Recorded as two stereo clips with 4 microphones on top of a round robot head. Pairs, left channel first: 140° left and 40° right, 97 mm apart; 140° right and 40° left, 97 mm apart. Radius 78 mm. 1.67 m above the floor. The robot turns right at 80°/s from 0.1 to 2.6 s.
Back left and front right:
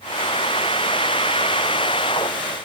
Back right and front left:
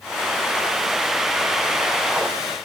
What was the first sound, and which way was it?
Only background noise.